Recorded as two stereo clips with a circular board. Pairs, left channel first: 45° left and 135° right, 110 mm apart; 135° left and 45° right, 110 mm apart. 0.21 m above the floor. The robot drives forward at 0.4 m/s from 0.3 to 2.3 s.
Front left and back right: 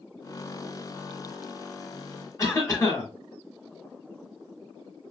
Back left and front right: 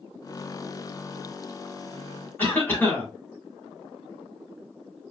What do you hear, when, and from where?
2.4 s a cough: 75° left, 1.8 m